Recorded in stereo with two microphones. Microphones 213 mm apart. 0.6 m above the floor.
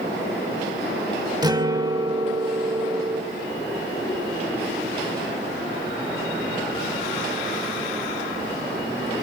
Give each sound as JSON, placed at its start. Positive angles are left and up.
{"t": 1.4, "sound": "a guitar", "side_deg": -20, "distance_m": 1.0}